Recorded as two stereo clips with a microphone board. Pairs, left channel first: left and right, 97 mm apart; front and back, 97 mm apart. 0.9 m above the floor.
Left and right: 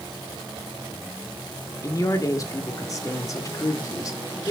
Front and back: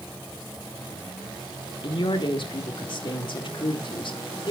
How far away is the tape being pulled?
I don't hear tape being pulled.